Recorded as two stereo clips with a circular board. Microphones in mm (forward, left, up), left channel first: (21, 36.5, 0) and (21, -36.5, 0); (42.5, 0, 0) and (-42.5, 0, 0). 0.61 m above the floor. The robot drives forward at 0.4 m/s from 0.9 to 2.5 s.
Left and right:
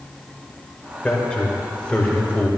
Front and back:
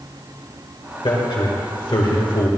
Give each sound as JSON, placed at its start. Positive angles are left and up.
{"t": 1.0, "sound": "a man speaking", "azimuth_deg": 15, "distance_m": 2.5}